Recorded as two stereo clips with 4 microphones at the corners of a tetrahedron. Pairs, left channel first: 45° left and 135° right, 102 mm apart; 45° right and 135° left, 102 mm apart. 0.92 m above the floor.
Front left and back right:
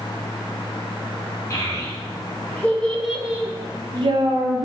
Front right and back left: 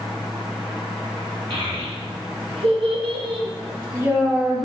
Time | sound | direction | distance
1.5 | a child speaking | 105° left | 1.3 m